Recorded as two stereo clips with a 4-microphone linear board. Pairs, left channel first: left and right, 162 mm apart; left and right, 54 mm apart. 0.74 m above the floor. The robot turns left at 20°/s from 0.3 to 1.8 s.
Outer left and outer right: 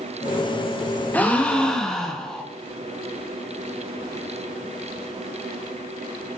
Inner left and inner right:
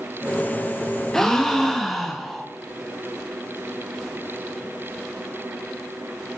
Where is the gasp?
10° left (ahead or behind), 1.0 m; by 2.5 s 5° left (ahead or behind), 1.0 m.